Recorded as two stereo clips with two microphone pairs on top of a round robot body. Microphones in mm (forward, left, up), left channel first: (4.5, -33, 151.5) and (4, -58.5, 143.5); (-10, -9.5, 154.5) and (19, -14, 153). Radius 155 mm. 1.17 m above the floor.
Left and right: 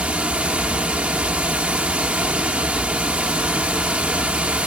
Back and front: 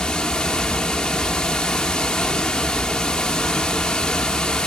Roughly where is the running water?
Behind right.